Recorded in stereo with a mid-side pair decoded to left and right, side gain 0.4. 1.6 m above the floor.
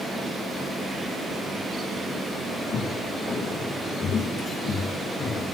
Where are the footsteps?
65° left, 6.5 m.